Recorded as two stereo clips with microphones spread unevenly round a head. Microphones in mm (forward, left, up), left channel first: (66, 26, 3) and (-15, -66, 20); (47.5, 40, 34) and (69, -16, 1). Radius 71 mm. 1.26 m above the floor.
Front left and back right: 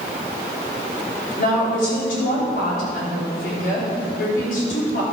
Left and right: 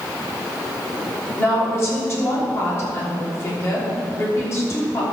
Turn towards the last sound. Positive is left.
turn(degrees=65)